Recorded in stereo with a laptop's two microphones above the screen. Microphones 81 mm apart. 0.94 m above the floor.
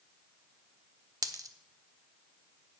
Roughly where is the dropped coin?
Right.